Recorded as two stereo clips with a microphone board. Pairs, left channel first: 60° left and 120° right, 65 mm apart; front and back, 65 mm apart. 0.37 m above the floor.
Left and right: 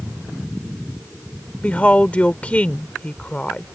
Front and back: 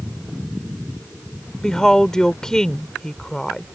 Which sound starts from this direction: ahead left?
A woman speaking, at 1.6 s.